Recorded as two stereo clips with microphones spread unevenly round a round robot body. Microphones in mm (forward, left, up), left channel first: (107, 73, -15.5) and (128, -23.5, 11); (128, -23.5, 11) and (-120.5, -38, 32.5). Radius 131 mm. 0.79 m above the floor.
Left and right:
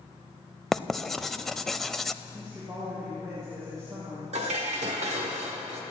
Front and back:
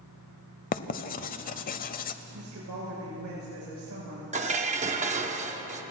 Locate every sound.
0.7 s writing: 15° right, 0.6 m
2.3 s a woman speaking: 155° right, 4.5 m
4.3 s dishes clattering: 110° right, 1.0 m